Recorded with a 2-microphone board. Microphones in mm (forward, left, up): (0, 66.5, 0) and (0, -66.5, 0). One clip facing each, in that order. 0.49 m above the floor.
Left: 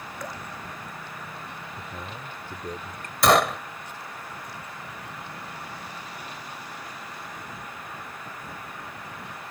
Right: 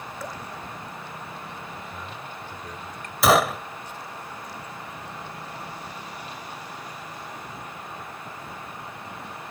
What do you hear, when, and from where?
0.2 s dripping: 5° right (ahead or behind)
1.8 s a man speaking: 40° left (ahead or behind)
3.2 s a gunshot: 5° right (ahead or behind)